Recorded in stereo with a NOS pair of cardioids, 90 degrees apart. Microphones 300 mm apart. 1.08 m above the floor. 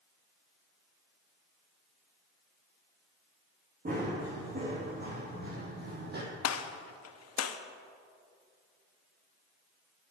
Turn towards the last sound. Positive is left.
turn(degrees=55)